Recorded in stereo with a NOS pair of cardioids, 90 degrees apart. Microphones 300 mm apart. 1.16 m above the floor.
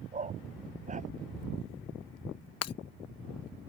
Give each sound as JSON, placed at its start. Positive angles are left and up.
{"t": 0.1, "sound": "a dog barking", "azimuth_deg": -25}
{"t": 2.6, "sound": "breaking glass", "azimuth_deg": 55}